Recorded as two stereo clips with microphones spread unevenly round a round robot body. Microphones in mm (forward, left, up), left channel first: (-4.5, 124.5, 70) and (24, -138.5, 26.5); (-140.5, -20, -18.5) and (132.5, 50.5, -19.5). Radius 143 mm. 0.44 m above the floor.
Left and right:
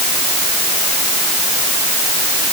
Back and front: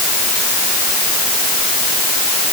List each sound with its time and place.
Only background noise.